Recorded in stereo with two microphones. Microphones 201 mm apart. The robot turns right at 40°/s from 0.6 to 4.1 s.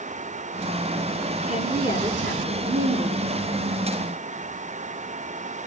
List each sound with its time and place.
1.5 s a woman speaking: 140° right, 6 m; by 3.3 s 70° right, 6 m